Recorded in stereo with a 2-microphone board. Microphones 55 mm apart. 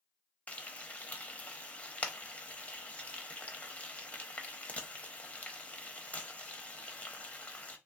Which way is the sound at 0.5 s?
25° left (ahead or behind).